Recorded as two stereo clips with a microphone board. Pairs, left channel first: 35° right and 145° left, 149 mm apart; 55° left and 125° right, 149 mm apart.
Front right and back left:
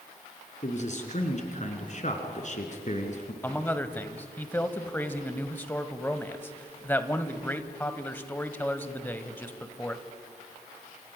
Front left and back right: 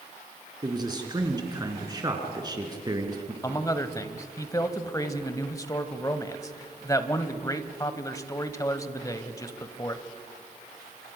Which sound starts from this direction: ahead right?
A man speaking, at 0.6 s.